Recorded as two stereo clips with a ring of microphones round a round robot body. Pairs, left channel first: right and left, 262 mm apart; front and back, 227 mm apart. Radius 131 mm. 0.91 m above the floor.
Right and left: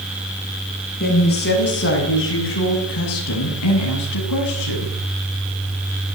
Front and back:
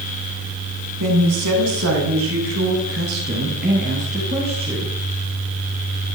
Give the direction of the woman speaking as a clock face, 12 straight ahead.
5 o'clock.